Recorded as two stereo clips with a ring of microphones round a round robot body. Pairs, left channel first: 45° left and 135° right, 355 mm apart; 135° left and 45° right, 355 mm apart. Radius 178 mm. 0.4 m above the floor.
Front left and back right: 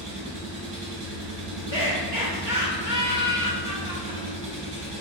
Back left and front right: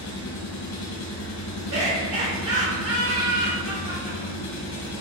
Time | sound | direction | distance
0.0 | an engine running | 175° right | 1.4 m
1.7 | laughter | 70° right | 1.6 m